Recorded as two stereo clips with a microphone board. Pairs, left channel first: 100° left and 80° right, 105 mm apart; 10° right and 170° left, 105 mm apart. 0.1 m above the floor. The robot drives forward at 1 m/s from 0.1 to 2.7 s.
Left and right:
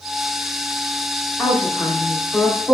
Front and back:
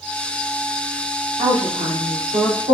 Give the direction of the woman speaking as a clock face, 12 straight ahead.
6 o'clock.